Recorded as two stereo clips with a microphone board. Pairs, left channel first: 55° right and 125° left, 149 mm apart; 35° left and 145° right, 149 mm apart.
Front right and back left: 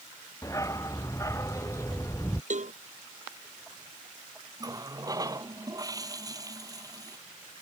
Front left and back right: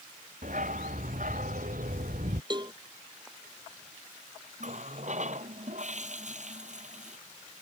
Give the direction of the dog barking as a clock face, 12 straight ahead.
4 o'clock.